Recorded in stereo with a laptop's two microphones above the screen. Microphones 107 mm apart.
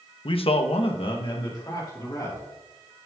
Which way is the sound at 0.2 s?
50° left (ahead or behind).